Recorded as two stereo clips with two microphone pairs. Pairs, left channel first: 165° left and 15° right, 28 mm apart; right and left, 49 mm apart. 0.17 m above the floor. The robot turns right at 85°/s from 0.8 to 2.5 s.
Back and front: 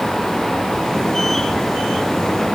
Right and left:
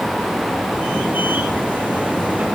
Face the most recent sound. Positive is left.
No sound to turn to.